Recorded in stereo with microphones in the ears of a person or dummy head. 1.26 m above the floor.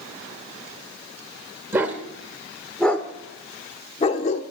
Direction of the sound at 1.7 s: 15° right (ahead or behind).